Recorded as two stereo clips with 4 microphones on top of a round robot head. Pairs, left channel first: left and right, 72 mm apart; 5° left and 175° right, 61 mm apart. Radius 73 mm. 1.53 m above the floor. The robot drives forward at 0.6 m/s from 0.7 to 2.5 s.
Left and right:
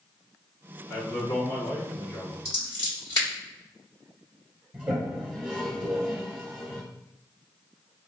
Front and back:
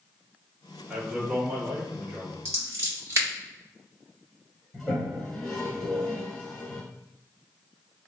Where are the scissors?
150° left, 1.4 m.